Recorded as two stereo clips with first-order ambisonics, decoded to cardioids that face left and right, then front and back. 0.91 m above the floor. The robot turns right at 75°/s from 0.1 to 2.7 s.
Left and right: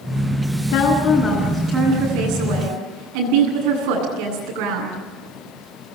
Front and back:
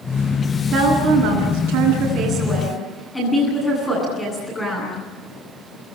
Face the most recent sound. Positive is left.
turn(degrees=-80)